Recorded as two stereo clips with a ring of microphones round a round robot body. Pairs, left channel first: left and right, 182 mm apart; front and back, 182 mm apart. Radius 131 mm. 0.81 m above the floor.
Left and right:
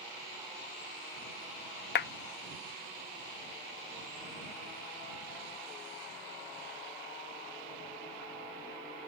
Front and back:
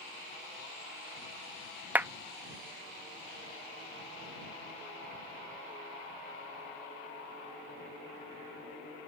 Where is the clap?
100° left.